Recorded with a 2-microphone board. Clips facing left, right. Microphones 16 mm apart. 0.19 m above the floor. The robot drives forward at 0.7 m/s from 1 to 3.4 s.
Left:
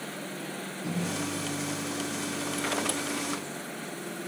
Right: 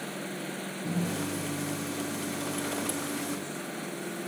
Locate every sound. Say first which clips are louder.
0.8 s a microwave: even; 35° left (ahead or behind), 1.9 m; by 3.5 s 20° left (ahead or behind), 3 m